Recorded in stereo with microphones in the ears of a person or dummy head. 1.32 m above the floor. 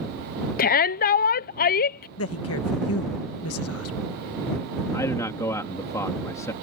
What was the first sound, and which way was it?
A shout, 45° left (ahead or behind).